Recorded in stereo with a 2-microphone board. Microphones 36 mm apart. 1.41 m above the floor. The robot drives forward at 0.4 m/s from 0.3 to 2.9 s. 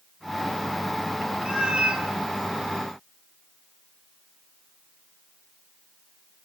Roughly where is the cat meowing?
Right.